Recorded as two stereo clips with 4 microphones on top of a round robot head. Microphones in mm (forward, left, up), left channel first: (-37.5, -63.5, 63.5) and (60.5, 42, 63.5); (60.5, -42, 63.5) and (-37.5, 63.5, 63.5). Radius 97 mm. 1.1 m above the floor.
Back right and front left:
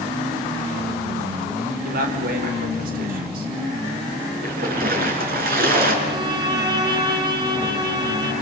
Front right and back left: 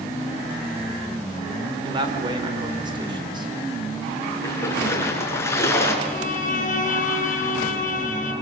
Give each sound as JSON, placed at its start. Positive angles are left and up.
{"t": 1.9, "sound": "a man speaking", "azimuth_deg": 75, "distance_m": 4.0}
{"t": 4.4, "sound": "a splash", "azimuth_deg": 25, "distance_m": 5.0}
{"t": 6.0, "sound": "a violin", "azimuth_deg": -10, "distance_m": 8.0}